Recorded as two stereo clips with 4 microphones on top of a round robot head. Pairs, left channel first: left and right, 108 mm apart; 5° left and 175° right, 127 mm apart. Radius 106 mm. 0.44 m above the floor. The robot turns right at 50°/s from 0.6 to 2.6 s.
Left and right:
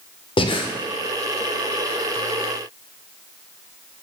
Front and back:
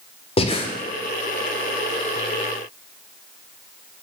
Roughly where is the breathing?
Ahead left.